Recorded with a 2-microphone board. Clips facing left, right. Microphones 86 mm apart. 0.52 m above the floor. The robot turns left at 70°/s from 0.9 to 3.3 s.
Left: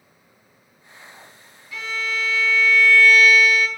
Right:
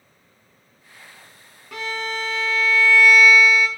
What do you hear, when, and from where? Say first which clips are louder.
1.7 s a violin: even; 70° right, 0.8 m; by 3.7 s straight behind, 0.8 m